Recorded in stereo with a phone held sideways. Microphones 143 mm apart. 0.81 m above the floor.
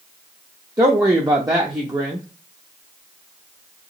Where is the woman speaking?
25° right (ahead or behind), 0.6 m.